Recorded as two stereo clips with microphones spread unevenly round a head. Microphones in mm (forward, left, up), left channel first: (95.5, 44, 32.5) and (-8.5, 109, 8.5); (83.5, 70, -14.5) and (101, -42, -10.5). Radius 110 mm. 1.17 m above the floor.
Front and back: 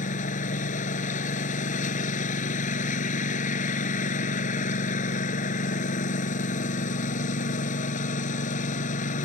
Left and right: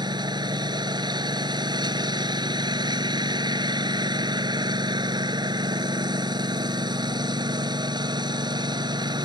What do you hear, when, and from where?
0.0 s a lawn mower: 30° right